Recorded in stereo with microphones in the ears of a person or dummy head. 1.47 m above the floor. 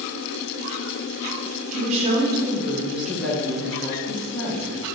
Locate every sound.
1.7 s a woman speaking: 40° right (ahead or behind), 0.9 m; by 4.9 s 30° left (ahead or behind), 1.8 m